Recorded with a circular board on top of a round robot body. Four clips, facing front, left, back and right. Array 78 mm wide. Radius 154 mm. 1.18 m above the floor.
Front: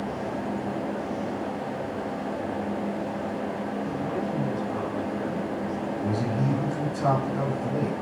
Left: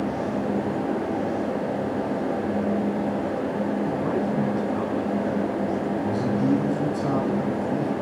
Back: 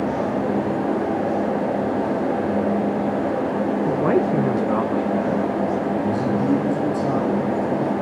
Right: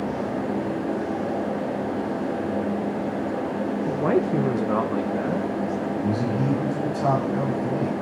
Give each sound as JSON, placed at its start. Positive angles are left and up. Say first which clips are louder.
{"t": 3.9, "sound": "a man speaking", "louder": "right 3 dB, back 10 dB", "azimuth_deg": -165, "distance_m": 1.2}
{"t": 6.0, "sound": "a man speaking", "louder": "left 1 dB, back 6 dB", "azimuth_deg": -50, "distance_m": 9.0}